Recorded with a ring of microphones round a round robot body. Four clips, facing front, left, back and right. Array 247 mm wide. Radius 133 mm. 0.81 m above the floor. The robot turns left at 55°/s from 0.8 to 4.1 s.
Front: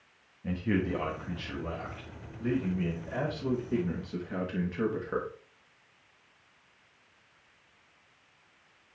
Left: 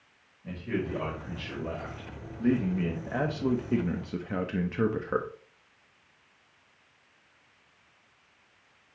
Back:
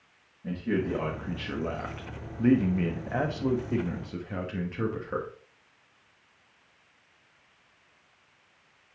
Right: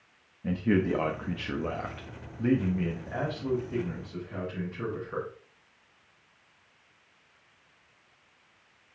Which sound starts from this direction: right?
A man speaking, at 0.4 s.